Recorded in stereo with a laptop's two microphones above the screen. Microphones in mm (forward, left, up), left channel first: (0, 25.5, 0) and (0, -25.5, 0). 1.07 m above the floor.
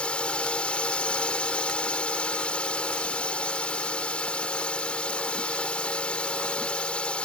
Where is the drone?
20° left (ahead or behind).